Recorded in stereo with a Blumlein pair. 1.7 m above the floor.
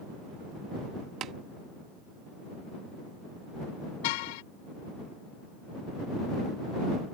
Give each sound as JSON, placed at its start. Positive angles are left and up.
{"t": 1.2, "sound": "tapping", "azimuth_deg": -30}
{"t": 4.0, "sound": "a car horn", "azimuth_deg": 50}